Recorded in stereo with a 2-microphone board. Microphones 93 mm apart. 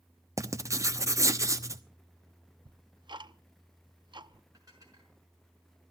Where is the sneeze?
No sneeze in this recording.